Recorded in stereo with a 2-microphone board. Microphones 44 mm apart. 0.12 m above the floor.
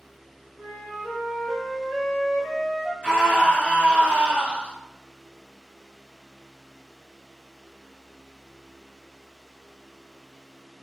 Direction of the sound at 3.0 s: 30° right (ahead or behind).